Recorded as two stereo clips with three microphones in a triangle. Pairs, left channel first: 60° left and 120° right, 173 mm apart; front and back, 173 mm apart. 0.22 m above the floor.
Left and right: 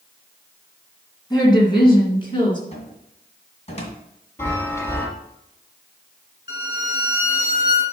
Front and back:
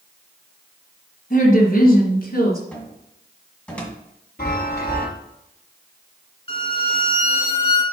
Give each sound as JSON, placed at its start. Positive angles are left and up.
{"t": 1.3, "sound": "a woman speaking", "azimuth_deg": 0, "distance_m": 2.0}
{"t": 2.7, "sound": "a cupboard door", "azimuth_deg": 80, "distance_m": 1.7}
{"t": 4.4, "sound": "a chime", "azimuth_deg": -15, "distance_m": 3.5}
{"t": 6.5, "sound": "a violin", "azimuth_deg": 55, "distance_m": 1.5}